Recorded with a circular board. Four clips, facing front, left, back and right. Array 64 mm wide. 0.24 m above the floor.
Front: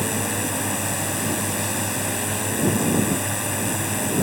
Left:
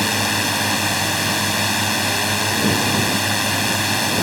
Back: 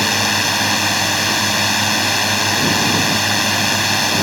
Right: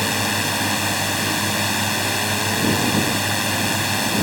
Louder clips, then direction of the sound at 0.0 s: Left 2 dB, back 7 dB; 165° left.